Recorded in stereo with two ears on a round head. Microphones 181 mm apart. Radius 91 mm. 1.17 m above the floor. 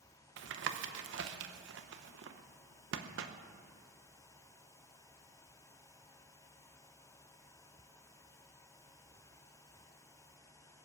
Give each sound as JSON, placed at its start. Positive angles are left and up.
{"t": 0.4, "sound": "tapping", "side_deg": -60, "distance_m": 0.9}